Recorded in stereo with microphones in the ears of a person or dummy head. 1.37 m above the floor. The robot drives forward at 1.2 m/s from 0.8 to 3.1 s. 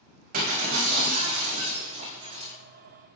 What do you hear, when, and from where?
0.3 s breaking glass: 50° right (ahead or behind), 4 m; by 2.5 s 35° right (ahead or behind), 6 m